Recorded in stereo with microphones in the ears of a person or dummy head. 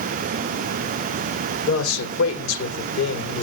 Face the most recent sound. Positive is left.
turn(degrees=75)  # may be behind; listen again after turning